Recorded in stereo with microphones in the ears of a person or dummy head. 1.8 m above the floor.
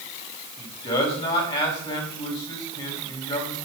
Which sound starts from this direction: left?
A man speaking, at 0.6 s.